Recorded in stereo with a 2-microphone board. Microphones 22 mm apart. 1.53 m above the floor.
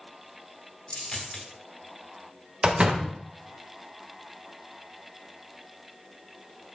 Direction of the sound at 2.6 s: 50° right (ahead or behind).